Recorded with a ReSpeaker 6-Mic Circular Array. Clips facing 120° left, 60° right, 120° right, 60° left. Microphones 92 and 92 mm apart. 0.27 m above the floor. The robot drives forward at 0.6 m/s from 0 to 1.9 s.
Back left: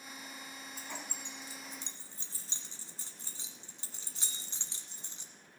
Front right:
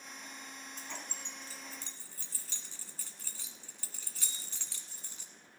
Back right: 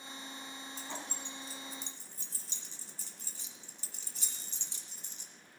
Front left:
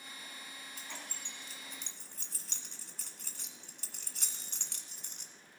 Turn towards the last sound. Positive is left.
turn(degrees=55)